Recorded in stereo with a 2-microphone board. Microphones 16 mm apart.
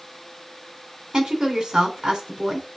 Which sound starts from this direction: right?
A woman speaking, at 1.1 s.